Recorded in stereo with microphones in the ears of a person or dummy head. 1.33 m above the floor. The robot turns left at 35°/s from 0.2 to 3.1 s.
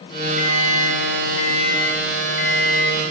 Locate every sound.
0.4 s an alarm clock: 60° left, 4 m; by 3.0 s 35° right, 4 m